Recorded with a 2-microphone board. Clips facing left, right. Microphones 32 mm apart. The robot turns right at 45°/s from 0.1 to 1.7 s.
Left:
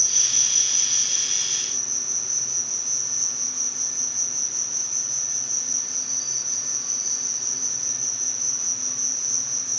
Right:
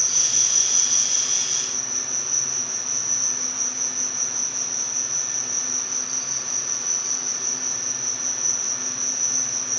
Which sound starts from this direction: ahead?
An insect, at 0.0 s.